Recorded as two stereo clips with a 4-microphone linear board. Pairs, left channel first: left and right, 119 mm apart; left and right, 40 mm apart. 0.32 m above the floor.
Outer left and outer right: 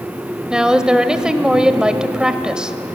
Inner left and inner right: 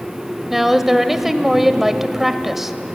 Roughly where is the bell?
I don't hear a bell.